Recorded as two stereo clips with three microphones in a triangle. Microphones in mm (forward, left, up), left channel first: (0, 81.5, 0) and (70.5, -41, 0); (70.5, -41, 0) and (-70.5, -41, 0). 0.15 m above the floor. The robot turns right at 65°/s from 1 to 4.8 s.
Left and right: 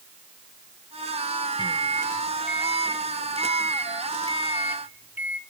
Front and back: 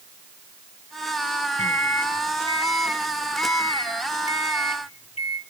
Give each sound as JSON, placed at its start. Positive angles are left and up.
{"t": 1.6, "sound": "a microwave", "azimuth_deg": 165, "distance_m": 1.3}